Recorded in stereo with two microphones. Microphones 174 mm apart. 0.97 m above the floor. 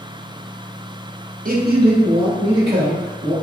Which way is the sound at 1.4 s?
50° right (ahead or behind).